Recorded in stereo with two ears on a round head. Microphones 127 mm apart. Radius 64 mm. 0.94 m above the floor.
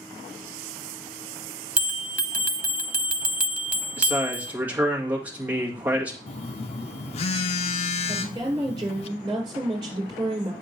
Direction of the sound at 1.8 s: 10° right (ahead or behind).